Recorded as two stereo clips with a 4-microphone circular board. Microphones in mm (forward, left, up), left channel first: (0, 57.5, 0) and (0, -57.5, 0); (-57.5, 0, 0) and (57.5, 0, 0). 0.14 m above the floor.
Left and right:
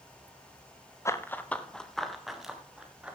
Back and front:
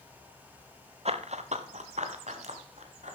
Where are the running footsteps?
25° left, 1.2 m; by 3.1 s 10° right, 3 m.